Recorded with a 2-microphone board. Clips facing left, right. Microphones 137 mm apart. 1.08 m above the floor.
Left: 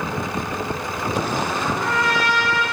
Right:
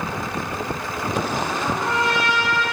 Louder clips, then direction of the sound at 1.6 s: Even; 25° right (ahead or behind).